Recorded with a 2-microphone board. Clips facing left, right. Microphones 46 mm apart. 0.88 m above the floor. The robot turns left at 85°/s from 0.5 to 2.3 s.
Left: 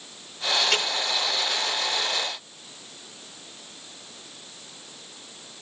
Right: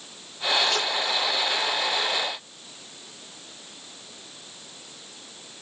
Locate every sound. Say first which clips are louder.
0.6 s a crack: even; 75° left (ahead or behind), 9.5 m; by 0.9 s 55° left (ahead or behind), 9.5 m